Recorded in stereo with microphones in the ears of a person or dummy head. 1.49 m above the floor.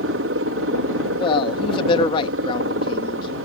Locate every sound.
0.0 s a helicopter: 65° right (ahead or behind)
1.2 s a man speaking: 35° left (ahead or behind)